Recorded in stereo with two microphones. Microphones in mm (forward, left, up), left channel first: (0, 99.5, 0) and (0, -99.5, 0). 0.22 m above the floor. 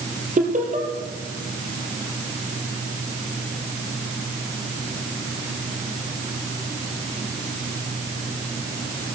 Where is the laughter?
40° right (ahead or behind), 5 m.